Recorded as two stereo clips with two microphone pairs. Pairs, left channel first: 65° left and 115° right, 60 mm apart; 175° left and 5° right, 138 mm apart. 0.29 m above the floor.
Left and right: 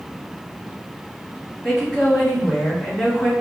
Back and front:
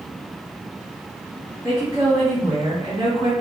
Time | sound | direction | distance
1.6 | a woman speaking | 15° right | 1.3 m